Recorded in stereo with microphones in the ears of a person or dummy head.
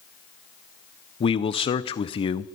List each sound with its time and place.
1.2 s a man speaking: 25° left (ahead or behind), 0.5 m